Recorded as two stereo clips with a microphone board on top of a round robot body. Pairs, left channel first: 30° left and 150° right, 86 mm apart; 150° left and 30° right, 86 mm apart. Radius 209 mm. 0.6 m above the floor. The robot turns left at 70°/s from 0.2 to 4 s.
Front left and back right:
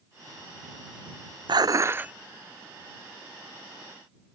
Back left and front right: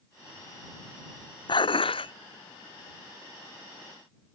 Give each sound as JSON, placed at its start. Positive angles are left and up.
{"t": 1.5, "sound": "dishes clattering", "azimuth_deg": 175}